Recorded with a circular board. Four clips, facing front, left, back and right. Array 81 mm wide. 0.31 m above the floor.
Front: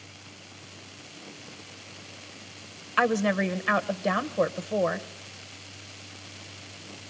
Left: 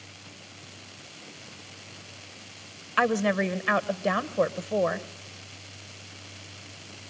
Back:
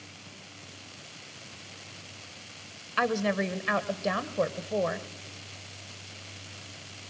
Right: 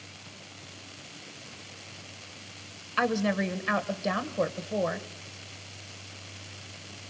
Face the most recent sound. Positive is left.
turn(degrees=55)